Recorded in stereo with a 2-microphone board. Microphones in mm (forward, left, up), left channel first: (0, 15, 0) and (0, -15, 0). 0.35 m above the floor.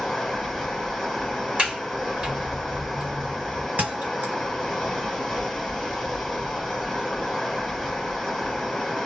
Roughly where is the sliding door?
Right.